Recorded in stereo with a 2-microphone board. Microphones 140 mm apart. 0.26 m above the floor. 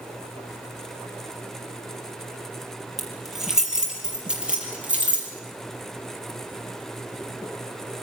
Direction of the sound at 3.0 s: Centre (ahead or behind).